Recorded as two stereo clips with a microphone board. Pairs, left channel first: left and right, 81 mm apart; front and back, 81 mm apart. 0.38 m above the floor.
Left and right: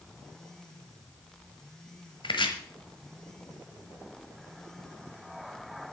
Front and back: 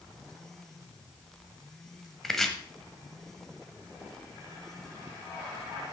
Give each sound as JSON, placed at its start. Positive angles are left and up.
{"t": 2.2, "sound": "chopping", "azimuth_deg": 85, "distance_m": 1.2}